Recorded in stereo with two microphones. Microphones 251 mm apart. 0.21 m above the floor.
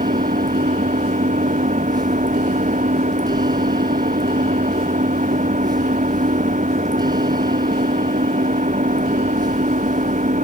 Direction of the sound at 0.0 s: 30° right (ahead or behind).